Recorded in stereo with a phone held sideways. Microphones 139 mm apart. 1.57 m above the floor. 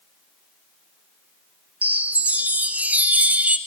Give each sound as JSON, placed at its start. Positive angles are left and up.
{"t": 1.8, "sound": "a chime", "side_deg": -10, "distance_m": 0.9}